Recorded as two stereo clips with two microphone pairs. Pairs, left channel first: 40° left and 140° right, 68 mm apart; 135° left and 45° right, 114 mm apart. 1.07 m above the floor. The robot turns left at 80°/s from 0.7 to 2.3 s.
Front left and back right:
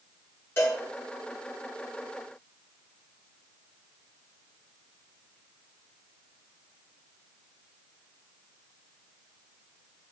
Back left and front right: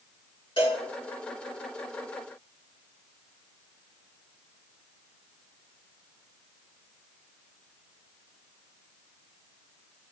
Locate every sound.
0.6 s a cowbell: 95° left, 3.5 m; by 0.8 s 85° left, 3.5 m